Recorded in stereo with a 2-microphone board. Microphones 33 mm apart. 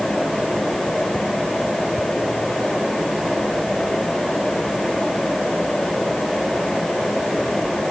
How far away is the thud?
I don't hear a thud.